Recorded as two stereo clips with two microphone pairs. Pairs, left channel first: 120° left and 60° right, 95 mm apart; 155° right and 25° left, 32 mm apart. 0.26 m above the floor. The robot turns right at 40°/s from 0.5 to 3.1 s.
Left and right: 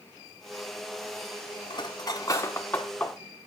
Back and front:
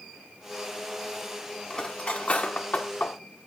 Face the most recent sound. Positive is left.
turn(degrees=-160)